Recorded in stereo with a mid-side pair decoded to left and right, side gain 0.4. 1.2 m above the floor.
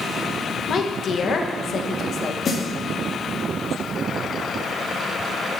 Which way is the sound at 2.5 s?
50° left.